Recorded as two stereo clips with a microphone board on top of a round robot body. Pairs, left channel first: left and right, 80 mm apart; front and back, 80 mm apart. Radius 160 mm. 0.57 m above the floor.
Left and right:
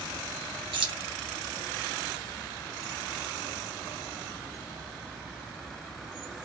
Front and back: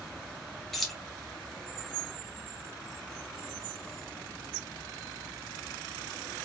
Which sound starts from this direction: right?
Keys jangling, at 0.7 s.